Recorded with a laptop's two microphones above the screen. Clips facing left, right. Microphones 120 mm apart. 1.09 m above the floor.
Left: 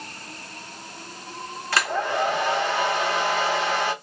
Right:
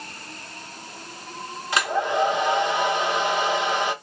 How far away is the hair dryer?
About 0.8 m.